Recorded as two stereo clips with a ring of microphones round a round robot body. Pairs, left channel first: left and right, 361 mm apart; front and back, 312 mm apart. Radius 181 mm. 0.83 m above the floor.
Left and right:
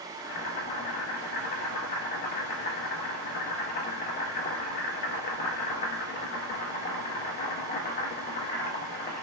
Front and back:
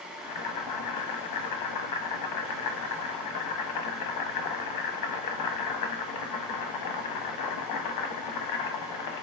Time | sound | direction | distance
0.2 | boiling | 25° left | 0.7 m